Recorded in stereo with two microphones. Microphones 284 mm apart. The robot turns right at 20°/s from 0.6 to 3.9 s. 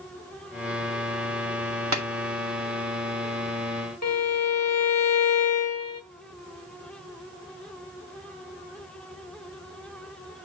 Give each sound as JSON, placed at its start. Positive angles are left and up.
{"t": 1.9, "sound": "tapping", "side_deg": -70, "distance_m": 1.9}
{"t": 4.0, "sound": "a violin", "side_deg": 65, "distance_m": 1.4}